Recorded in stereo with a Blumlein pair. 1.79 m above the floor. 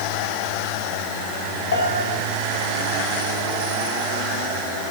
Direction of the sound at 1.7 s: 65° left.